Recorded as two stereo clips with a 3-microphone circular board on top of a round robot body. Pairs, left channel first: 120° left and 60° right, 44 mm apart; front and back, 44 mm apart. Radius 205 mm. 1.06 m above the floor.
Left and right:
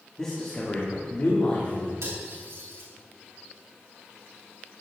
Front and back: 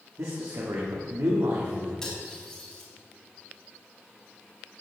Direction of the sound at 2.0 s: 75° right.